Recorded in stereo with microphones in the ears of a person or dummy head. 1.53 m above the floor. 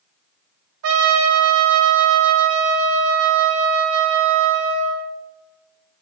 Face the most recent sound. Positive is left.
turn(degrees=-75)  # may be behind; listen again after turning